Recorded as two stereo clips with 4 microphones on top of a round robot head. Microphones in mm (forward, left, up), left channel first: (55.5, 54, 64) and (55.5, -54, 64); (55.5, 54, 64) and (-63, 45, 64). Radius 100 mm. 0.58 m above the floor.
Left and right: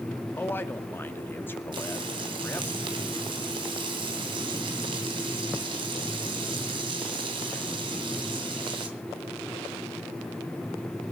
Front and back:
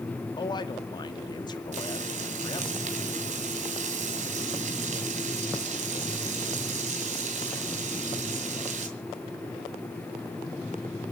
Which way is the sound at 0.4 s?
30° left.